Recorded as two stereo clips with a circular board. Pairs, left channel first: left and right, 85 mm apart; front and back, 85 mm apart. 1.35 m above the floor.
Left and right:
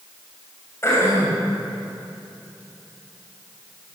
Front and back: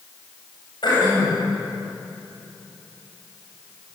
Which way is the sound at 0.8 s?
30° left.